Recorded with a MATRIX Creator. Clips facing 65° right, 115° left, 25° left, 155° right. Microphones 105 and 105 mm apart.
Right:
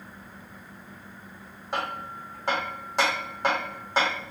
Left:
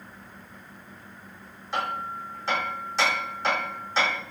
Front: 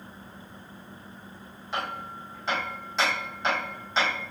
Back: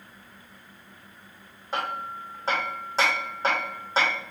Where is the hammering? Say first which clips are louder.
Left 2 dB, back 3 dB; 105° right, 1.9 m.